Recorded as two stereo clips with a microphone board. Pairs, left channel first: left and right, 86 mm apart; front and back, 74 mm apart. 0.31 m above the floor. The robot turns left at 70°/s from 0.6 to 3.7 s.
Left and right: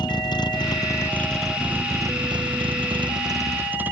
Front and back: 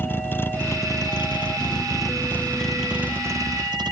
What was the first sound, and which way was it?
A vehicle, 60° left.